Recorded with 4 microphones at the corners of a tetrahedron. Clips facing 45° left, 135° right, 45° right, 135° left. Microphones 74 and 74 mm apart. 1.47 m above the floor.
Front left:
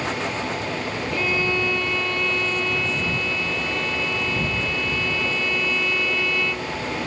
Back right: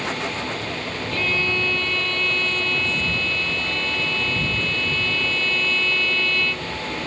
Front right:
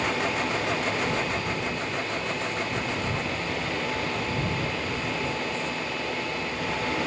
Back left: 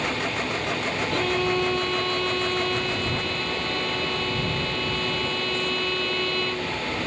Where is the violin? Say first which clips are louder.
Front left 1 dB, back left 5 dB; 120° left.